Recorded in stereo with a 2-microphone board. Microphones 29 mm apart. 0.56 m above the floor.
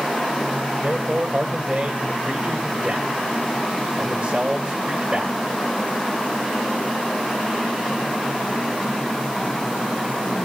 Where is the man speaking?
35° right (ahead or behind), 2.5 m.